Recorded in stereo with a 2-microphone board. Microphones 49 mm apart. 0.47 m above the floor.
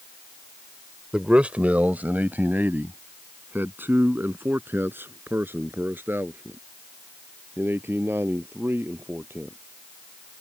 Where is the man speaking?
20° right (ahead or behind); by 9.6 s 50° right (ahead or behind).